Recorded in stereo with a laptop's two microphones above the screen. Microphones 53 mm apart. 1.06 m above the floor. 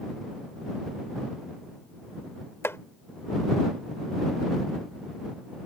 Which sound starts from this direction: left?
Chopping, at 2.6 s.